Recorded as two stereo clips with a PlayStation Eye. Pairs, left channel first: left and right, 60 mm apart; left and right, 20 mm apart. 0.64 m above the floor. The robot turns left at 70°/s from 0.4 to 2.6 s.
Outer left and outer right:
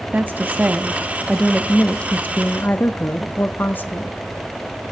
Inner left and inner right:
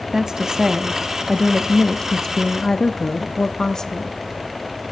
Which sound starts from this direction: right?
A woman speaking, at 0.1 s.